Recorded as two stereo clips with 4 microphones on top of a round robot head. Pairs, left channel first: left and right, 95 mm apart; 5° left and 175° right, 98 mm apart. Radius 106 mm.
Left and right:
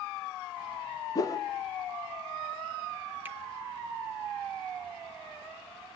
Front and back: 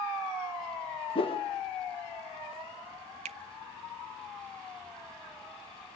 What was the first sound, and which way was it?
A whoosh, 35° left.